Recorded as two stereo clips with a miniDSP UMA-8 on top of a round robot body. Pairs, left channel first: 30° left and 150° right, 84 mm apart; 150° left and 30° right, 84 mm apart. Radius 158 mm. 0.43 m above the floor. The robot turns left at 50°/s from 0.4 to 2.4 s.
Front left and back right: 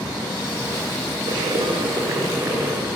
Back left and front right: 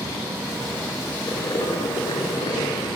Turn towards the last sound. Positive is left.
turn(degrees=150)